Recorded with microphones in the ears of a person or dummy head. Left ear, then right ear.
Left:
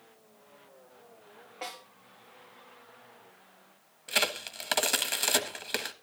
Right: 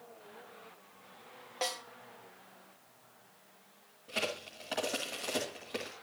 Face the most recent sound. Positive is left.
turn(degrees=40)  # may be behind; listen again after turning